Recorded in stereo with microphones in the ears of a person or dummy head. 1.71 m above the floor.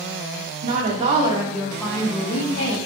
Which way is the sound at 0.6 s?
50° right (ahead or behind).